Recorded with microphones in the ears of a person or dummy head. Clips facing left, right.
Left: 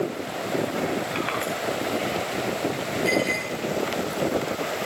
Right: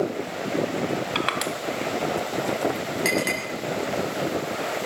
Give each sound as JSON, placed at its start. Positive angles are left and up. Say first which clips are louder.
{"t": 1.1, "sound": "crushing", "louder": "even", "side_deg": -60, "distance_m": 2.0}
{"t": 3.0, "sound": "a clink", "louder": "left 2 dB", "side_deg": -80, "distance_m": 6.0}